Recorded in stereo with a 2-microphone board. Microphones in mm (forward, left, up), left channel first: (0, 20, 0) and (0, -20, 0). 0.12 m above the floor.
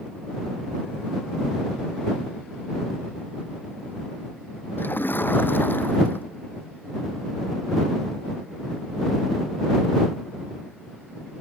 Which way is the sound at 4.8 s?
55° left (ahead or behind).